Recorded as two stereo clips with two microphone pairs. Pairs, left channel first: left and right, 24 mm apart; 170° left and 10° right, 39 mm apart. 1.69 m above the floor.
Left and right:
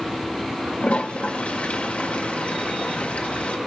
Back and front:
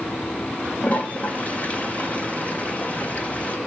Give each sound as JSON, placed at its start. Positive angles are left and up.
{"t": 0.8, "sound": "a toilet flushing", "azimuth_deg": 115, "distance_m": 1.4}